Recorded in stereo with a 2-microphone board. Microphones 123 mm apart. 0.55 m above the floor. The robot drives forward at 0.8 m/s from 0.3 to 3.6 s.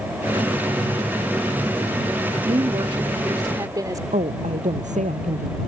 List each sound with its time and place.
2.4 s a woman speaking: 40° right (ahead or behind); by 4.0 s 30° right (ahead or behind)
4.1 s a woman speaking: 75° right (ahead or behind)